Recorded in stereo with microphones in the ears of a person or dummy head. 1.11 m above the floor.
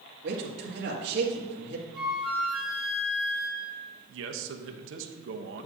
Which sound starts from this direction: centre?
A flute, at 1.9 s.